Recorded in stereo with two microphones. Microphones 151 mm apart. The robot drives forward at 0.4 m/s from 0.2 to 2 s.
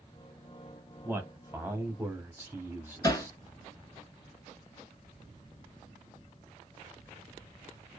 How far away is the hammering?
About 0.7 m.